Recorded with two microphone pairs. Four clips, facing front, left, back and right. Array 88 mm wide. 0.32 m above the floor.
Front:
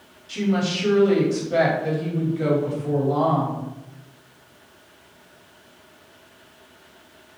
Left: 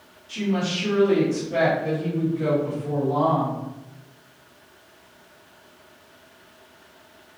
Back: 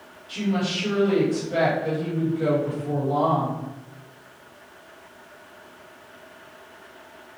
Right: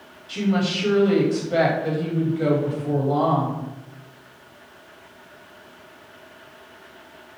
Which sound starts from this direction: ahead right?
A woman speaking, at 0.3 s.